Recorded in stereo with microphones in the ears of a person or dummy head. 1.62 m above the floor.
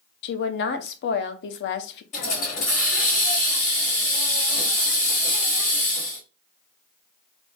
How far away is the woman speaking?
About 0.7 m.